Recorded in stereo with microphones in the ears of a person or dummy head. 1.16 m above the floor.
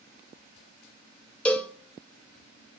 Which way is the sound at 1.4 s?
5° left (ahead or behind).